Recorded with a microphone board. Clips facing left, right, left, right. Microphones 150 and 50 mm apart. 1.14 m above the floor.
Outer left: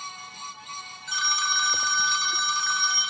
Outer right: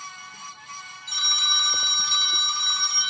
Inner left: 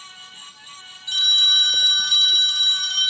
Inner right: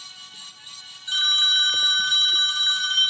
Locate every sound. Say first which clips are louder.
1.1 s a phone ringing: outer left 4 dB, inner left 2 dB; 30° right (ahead or behind), 1.2 m